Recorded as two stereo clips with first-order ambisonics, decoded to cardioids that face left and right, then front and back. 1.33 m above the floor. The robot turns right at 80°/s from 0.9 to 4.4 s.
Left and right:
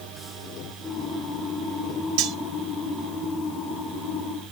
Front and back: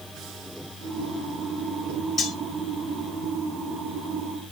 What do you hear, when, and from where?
2.2 s cutlery clinking: 80° right, 1.4 m; by 2.4 s 65° right, 1.4 m